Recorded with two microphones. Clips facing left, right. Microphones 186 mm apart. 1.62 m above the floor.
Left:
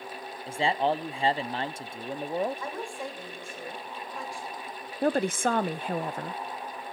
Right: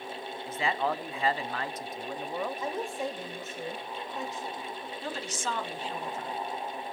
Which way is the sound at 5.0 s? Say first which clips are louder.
Left 12 dB; 55° left (ahead or behind).